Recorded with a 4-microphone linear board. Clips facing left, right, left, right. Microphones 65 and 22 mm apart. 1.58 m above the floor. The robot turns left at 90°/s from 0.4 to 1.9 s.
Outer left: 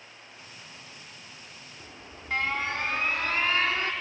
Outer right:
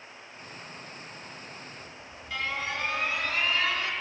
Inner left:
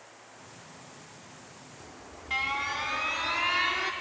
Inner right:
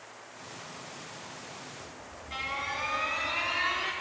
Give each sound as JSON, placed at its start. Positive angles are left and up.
{"t": 1.8, "sound": "an alarm", "side_deg": 55, "distance_m": 5.5}